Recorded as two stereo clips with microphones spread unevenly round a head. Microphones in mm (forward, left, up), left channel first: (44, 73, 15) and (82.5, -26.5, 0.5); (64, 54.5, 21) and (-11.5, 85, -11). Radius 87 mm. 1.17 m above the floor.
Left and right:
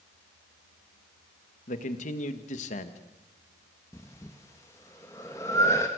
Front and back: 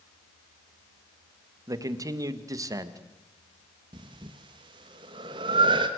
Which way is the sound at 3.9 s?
175° right.